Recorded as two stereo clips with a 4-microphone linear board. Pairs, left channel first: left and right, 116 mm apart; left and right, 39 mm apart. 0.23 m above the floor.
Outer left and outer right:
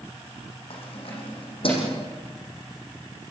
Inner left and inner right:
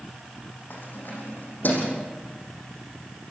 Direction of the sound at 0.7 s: 60° left (ahead or behind).